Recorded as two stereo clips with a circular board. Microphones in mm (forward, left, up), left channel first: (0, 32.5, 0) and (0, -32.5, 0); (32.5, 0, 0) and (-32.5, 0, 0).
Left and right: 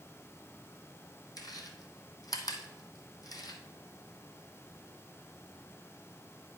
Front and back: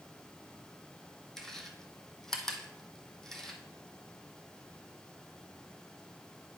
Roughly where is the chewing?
Left.